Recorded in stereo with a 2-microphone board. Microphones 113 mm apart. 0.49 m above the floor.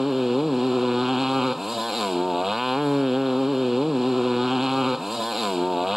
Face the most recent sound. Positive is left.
turn(degrees=-5)  # may be behind; listen again after turning